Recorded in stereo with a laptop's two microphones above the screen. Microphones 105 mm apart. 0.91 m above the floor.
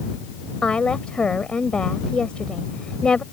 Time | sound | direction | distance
0.6 | a woman speaking | 10° left (ahead or behind) | ?